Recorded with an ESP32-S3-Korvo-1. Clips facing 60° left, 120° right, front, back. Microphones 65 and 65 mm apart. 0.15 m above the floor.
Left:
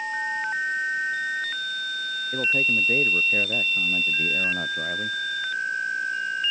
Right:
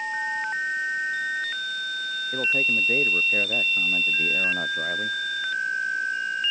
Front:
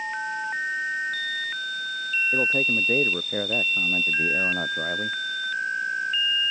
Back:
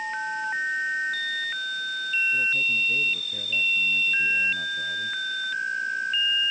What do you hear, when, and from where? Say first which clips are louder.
2.3 s a man speaking: left 1 dB, front 2 dB; 35° right; by 5.2 s 40° right